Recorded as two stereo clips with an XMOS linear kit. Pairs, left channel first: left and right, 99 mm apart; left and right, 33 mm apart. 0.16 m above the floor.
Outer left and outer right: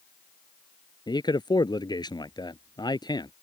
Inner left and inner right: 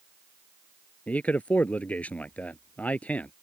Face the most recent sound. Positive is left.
turn(degrees=45)  # may be behind; listen again after turning